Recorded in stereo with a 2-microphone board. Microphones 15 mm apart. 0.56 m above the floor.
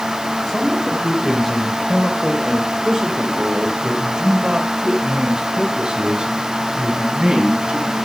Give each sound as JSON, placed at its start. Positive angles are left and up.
{"t": 0.5, "sound": "a man speaking", "side_deg": 5, "distance_m": 2.5}